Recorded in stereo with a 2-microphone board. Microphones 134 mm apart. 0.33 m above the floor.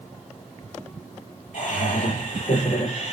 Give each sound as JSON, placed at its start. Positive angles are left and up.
{"t": 1.5, "sound": "laughter", "side_deg": 60, "distance_m": 7.5}